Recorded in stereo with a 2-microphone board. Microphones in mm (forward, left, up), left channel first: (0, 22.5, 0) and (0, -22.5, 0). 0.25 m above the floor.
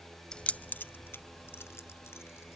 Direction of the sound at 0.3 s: 15° left (ahead or behind).